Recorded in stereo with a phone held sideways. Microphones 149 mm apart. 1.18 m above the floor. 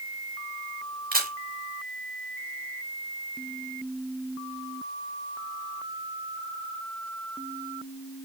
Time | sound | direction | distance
1.1 | a camera shutter | 80° right | 4 m